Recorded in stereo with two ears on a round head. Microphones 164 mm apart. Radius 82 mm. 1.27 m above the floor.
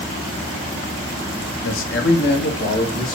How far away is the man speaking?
About 0.9 m.